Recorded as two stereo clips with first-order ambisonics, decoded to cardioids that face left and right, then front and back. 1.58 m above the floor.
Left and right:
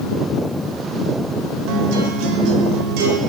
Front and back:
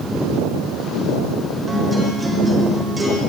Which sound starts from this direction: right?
A guitar, at 1.7 s.